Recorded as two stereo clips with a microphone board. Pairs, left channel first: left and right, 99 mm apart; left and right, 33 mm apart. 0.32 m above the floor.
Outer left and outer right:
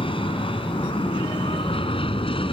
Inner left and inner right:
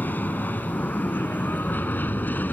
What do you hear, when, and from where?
0.0 s an aircraft: 60° left (ahead or behind)